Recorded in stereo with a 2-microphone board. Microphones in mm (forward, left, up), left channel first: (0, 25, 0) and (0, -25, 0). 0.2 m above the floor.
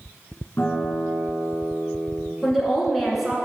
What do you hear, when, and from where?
0.6 s a guitar: 50° left (ahead or behind), 1.9 m
2.4 s a woman speaking: 5° right (ahead or behind), 2 m